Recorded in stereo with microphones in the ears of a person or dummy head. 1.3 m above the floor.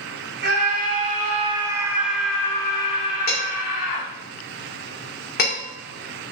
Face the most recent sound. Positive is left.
turn(degrees=50)  # may be behind; listen again after turning